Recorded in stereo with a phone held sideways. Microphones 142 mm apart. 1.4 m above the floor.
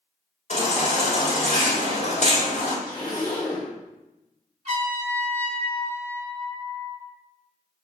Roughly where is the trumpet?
Right.